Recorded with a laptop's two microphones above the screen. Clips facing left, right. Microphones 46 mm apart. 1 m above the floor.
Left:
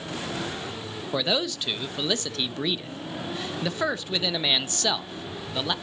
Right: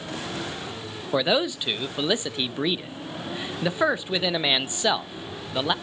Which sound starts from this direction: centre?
A man speaking, at 1.1 s.